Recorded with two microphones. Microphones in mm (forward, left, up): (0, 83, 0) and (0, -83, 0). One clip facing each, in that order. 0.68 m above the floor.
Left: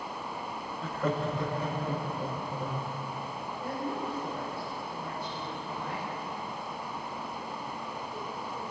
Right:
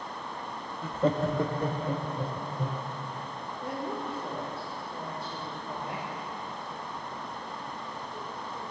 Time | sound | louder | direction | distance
0.8 | laughter | right 4 dB | 5° right (ahead or behind) | 0.5 m
3.6 | a woman speaking | even | 25° right (ahead or behind) | 2 m